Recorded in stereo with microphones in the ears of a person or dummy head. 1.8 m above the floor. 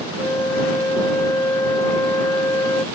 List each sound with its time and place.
0.2 s a flute: 10° left (ahead or behind)